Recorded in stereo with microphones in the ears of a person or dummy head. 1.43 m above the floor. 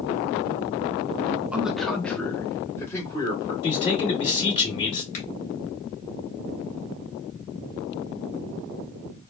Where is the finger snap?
40° left (ahead or behind), 2.0 m.